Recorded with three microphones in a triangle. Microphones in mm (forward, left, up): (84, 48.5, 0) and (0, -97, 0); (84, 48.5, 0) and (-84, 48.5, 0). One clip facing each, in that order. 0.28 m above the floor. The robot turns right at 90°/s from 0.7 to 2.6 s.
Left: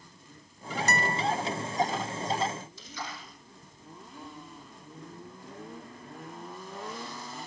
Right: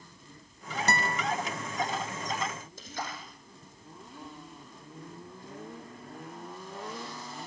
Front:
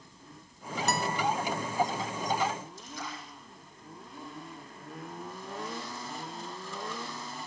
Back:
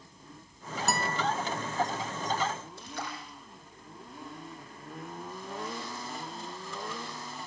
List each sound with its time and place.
0.9 s a guitar: 95° right, 0.9 m; by 1.2 s 65° right, 0.9 m
2.8 s a splash: 160° right, 4 m